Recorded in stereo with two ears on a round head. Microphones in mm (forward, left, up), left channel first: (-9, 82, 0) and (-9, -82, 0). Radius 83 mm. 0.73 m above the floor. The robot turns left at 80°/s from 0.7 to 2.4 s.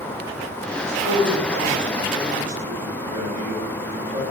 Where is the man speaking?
35° left, 1.4 m; by 4.2 s 90° right, 1.4 m.